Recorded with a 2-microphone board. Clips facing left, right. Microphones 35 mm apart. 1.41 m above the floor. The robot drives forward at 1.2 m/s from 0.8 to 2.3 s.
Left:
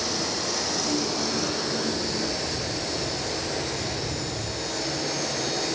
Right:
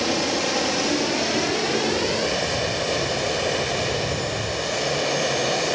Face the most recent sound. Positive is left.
turn(degrees=-75)  # may be behind; listen again after turning